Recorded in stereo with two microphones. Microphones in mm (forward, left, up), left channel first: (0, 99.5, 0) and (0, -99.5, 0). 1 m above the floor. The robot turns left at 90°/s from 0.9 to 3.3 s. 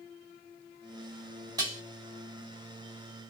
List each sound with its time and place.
1.6 s dishes clattering: 20° right (ahead or behind), 1.1 m; by 1.8 s 40° right (ahead or behind), 1.1 m